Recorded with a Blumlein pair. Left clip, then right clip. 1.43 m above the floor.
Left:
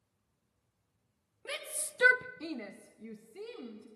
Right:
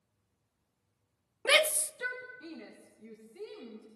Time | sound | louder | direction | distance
1.4 | a shout | right 15 dB | 60° right | 0.8 m